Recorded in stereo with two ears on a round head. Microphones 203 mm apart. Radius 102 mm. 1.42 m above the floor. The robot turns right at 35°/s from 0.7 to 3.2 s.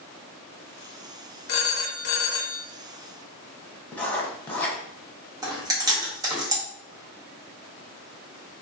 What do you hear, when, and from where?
1.5 s a phone ringing: 55° left, 0.5 m; by 2.6 s 95° left, 0.5 m
3.9 s writing: 5° left (ahead or behind), 0.6 m
5.4 s chewing: 15° right (ahead or behind), 0.8 m